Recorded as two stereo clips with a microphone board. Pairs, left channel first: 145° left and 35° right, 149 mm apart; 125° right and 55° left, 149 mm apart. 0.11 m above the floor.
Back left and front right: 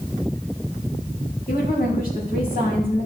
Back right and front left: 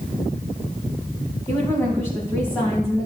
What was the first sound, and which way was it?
A woman speaking, 165° left.